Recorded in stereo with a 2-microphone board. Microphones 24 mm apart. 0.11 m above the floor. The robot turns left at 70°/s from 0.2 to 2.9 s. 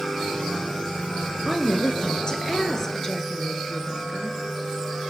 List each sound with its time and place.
1.4 s a woman speaking: 140° left, 1.8 m; by 4.4 s 35° left, 1.8 m